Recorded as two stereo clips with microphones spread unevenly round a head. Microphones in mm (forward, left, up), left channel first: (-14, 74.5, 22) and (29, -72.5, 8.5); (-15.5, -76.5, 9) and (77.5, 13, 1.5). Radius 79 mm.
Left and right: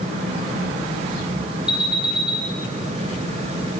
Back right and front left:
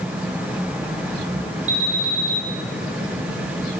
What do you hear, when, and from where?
1.7 s an alarm: 10° left, 4.5 m